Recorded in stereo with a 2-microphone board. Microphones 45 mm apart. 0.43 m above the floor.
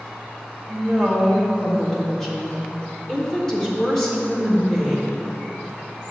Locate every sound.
0.7 s a woman speaking: 10° left (ahead or behind), 1.0 m